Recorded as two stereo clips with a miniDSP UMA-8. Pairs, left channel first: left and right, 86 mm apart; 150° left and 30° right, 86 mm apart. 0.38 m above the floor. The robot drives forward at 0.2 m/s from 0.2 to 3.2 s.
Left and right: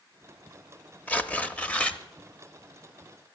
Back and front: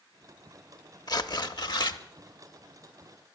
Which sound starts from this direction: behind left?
Tearing paper, at 1.1 s.